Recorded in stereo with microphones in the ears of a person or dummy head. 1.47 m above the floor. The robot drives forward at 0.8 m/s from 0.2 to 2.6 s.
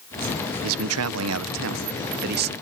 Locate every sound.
0.6 s a man speaking: 75° right (ahead or behind); by 2.5 s 45° right (ahead or behind)